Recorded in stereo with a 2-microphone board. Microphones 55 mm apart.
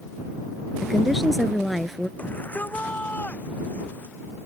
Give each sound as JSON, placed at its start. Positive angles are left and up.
{"t": 0.8, "sound": "a woman speaking", "side_deg": 0}
{"t": 2.2, "sound": "a shout", "side_deg": 30}